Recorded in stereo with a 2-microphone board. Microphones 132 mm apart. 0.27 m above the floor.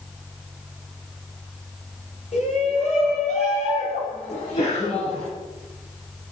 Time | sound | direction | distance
2.3 | a shout | 55° left (ahead or behind) | 5.5 m
4.3 | a sneeze | 50° left (ahead or behind) | 4 m